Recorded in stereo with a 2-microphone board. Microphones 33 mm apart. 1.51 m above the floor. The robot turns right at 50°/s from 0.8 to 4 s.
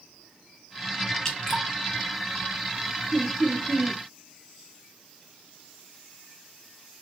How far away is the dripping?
About 0.9 m.